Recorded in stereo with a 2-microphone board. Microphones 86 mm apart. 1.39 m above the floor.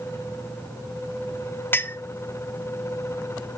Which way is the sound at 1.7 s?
25° left (ahead or behind).